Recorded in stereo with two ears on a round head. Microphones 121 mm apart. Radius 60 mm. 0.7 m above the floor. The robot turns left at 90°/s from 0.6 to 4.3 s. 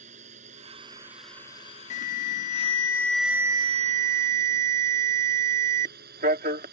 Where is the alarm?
115° left; by 6.7 s 100° right.